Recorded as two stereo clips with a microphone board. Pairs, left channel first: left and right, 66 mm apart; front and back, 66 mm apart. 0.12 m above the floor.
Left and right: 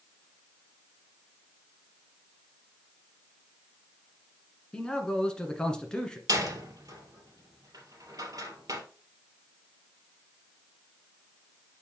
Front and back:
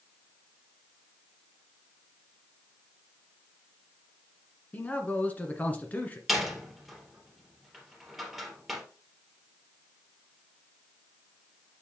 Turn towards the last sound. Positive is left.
turn(degrees=-95)